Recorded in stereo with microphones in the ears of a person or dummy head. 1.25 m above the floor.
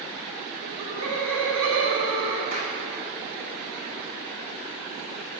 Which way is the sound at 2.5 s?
35° right (ahead or behind).